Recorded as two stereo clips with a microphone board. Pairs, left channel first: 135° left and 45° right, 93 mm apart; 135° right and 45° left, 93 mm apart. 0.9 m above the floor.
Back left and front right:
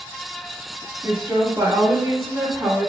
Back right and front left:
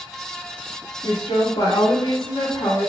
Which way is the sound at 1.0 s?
110° right.